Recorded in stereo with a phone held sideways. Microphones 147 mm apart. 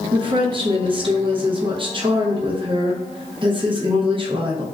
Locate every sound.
0.1 s a woman speaking: 35° right (ahead or behind), 0.6 m